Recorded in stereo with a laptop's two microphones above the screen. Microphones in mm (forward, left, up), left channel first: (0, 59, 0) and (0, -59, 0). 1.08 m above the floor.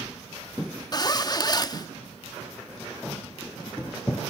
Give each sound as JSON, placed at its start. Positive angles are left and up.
{"t": 0.9, "sound": "a zipper", "side_deg": 35, "distance_m": 1.2}